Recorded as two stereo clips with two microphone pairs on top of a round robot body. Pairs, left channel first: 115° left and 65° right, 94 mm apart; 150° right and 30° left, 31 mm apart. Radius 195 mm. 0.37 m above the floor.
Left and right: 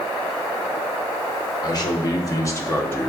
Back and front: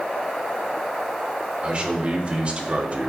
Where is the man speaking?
85° left, 1.9 m; by 3.1 s 60° left, 1.4 m.